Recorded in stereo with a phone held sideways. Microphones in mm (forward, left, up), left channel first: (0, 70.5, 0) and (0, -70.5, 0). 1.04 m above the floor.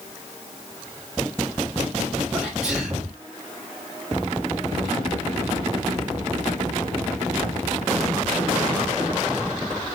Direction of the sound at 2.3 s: 5° right (ahead or behind).